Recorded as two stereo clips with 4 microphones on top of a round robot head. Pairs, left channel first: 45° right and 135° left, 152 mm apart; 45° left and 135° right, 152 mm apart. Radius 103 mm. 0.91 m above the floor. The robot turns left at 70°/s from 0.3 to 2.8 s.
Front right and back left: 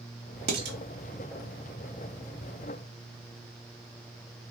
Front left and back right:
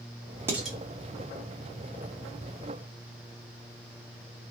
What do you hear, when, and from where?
0.5 s dishes clattering: 150° left, 1.1 m; by 0.8 s 130° left, 1.1 m